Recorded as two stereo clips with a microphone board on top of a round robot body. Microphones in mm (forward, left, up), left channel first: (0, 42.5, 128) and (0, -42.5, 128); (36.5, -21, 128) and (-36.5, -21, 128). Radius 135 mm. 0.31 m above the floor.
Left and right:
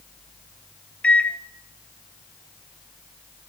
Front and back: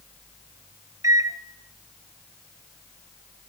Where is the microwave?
160° left, 0.9 m.